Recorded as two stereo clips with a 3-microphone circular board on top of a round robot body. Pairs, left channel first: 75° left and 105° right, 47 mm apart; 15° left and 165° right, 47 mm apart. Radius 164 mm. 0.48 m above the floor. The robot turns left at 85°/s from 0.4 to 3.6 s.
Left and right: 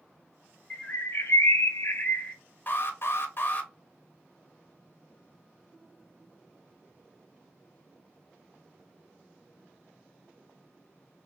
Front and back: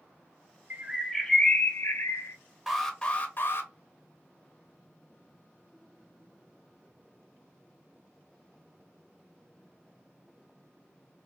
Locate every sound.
0.7 s a bird: 140° left, 0.7 m; by 2.4 s straight ahead, 0.7 m
2.7 s an alarm: 115° left, 0.9 m; by 3.7 s 35° left, 0.9 m